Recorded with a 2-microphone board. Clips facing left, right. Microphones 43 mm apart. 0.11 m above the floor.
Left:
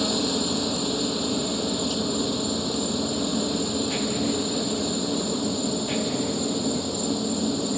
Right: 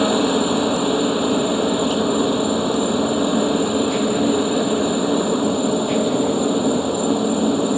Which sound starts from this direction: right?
A helicopter, at 0.0 s.